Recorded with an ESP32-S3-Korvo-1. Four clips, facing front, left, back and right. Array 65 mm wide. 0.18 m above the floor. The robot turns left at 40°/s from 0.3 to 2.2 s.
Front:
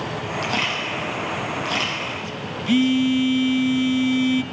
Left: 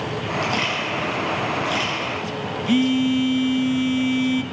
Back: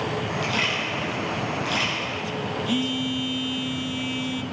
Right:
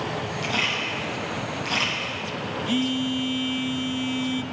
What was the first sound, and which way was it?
A camera shutter, 30° left.